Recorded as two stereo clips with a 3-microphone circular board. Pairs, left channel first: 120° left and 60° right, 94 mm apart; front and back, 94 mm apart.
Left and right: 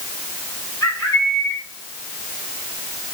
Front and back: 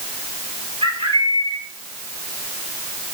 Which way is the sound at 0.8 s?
Straight behind.